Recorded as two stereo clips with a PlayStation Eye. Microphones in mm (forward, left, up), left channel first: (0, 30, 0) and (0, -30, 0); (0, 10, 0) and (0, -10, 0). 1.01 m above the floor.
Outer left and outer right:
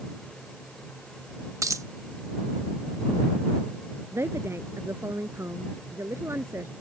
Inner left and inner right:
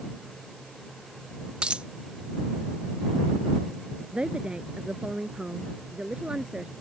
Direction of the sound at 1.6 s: 65° right (ahead or behind).